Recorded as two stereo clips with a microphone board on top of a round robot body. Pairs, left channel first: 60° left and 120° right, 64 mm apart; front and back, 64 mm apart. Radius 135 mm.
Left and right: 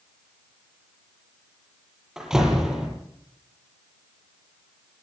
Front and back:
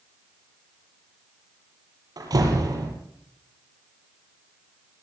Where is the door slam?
155° left, 8.5 m.